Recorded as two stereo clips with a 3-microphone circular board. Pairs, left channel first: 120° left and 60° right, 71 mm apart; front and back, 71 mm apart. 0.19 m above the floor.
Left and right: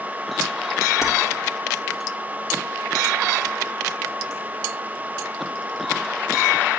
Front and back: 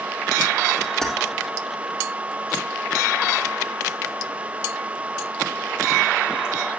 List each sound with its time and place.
1.0 s keys jangling: 85° left, 3 m